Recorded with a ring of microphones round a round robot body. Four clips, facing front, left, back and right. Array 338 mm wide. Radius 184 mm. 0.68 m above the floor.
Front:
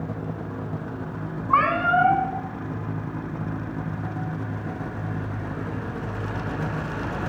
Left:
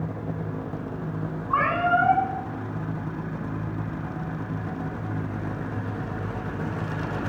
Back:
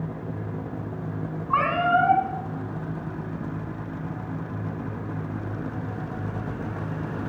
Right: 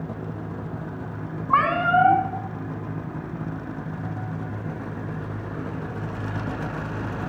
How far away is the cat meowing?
About 2.5 m.